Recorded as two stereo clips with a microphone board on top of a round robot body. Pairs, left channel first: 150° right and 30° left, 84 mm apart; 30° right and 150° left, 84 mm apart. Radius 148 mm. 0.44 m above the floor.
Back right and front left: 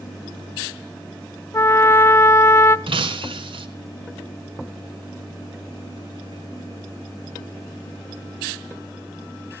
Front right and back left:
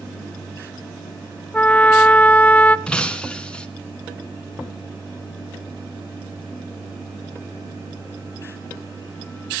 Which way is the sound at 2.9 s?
50° left.